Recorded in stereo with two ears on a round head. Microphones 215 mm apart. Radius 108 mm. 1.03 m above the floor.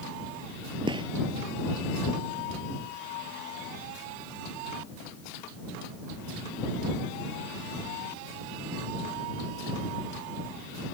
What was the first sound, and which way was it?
A gunshot, 20° right (ahead or behind).